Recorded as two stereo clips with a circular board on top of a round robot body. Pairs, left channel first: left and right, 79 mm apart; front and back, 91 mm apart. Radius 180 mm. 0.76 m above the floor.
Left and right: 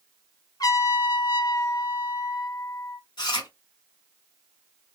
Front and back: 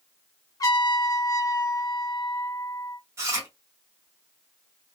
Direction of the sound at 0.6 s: 50° left.